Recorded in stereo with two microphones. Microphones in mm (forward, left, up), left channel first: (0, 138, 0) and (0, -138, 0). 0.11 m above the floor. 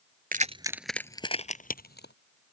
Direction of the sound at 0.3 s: 30° right (ahead or behind).